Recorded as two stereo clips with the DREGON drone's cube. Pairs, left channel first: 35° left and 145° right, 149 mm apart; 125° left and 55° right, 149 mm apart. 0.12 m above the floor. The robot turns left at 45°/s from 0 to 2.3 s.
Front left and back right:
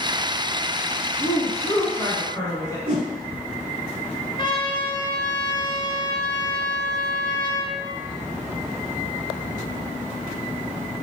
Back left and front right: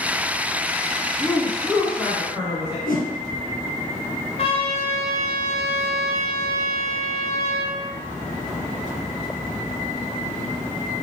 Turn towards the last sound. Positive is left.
turn(degrees=85)